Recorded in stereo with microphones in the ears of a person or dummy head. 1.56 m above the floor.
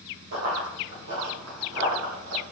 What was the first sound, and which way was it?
Running footsteps, 45° right (ahead or behind).